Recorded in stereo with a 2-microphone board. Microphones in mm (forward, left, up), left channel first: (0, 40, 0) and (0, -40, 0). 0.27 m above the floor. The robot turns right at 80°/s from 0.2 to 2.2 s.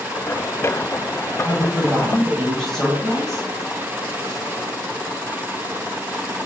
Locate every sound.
1.4 s a woman speaking: 55° right, 1.5 m; by 3.5 s 5° left, 1.5 m